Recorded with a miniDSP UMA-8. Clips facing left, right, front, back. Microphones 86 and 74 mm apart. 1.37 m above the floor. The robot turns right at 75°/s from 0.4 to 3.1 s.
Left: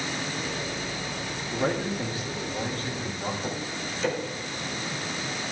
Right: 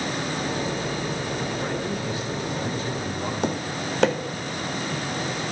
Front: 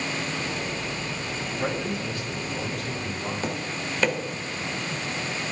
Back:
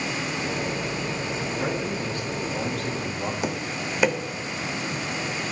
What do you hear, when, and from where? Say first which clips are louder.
1.5 s a man speaking: even, front 1 dB; 95° left, 2.5 m; by 3.3 s 145° right, 2.5 m
3.4 s tapping: right 6 dB, back 1 dB; 100° right, 0.9 m